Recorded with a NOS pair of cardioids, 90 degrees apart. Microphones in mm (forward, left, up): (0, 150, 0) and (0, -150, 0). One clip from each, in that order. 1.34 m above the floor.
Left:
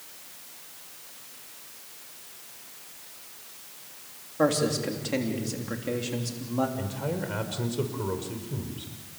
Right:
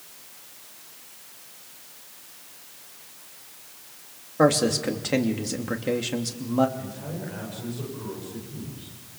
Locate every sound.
4.4 s a man speaking: 40° right, 3 m
6.8 s a man speaking: 65° left, 5.5 m